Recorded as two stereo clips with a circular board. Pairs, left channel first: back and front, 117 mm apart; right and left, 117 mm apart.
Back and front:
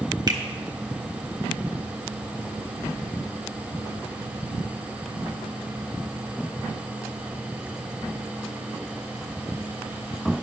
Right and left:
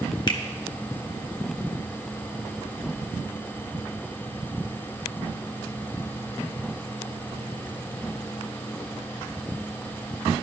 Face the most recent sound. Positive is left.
turn(degrees=-45)